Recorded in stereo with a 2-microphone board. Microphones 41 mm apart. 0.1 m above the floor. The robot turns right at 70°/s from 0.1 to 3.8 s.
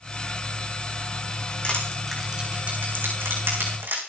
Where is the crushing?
35° left (ahead or behind), 5 m; by 4.0 s 65° right (ahead or behind), 5 m.